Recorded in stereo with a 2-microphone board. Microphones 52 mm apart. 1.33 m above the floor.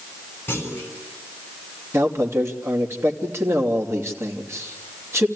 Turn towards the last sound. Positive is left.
turn(degrees=-60)  # may be behind; listen again after turning